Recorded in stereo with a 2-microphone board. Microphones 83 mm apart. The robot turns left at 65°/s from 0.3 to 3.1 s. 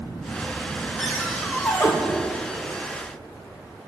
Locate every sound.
1.0 s a cupboard door: 175° left, 4 m; by 1.9 s 115° left, 4 m